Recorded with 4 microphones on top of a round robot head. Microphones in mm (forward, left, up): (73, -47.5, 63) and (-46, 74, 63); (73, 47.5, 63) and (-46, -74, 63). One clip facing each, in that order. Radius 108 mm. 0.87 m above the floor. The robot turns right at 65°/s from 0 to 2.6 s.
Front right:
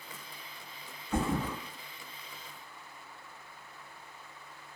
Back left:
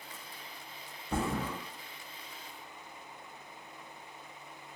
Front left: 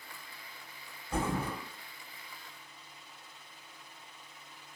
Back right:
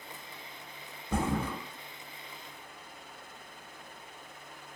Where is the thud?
165° right, 0.8 m; by 1.5 s 140° right, 0.8 m.